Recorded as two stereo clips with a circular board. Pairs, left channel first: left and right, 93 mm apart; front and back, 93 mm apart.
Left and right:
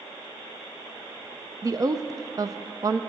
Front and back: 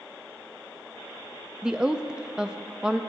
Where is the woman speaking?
100° right, 0.6 m.